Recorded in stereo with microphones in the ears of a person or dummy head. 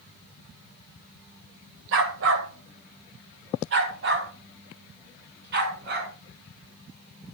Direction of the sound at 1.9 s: 65° right (ahead or behind).